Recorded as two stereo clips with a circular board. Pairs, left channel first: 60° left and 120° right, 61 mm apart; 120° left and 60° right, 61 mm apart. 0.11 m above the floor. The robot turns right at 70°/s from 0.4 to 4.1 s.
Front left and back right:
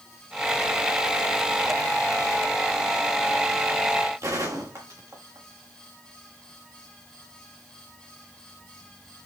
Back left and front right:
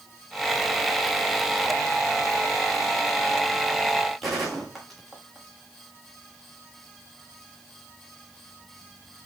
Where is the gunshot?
150° right, 4 m.